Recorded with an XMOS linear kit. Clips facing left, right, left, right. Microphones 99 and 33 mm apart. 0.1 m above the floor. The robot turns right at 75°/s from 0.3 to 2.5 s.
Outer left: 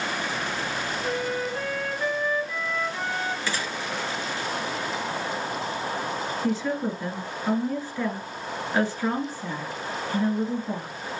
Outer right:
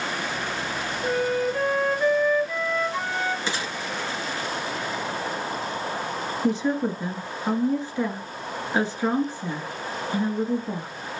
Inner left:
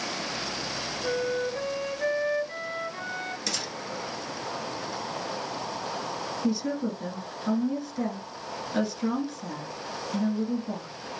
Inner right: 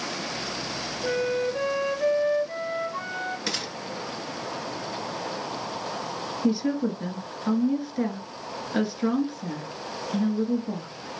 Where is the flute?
100° right, 2.0 m; by 3.4 s 10° left, 2.0 m.